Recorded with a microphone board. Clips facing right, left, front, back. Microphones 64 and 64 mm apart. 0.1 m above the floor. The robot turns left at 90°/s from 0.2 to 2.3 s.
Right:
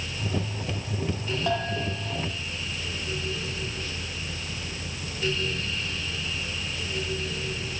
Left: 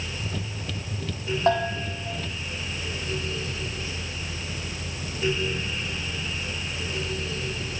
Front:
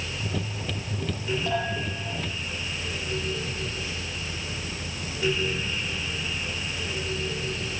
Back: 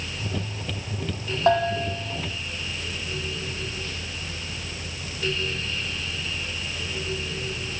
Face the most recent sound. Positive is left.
turn(degrees=70)